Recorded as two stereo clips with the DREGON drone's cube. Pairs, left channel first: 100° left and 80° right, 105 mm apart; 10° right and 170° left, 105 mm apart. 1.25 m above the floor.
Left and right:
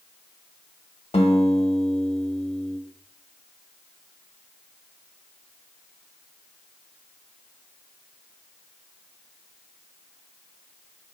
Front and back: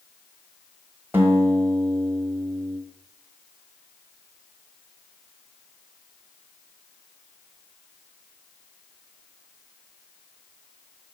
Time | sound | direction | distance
1.1 | a guitar | 100° left | 1.1 m